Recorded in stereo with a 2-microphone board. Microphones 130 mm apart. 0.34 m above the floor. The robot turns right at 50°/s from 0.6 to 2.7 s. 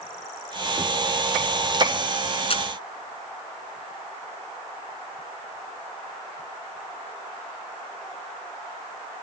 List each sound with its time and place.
2.5 s a camera shutter: 45° left (ahead or behind); by 2.6 s 40° left (ahead or behind)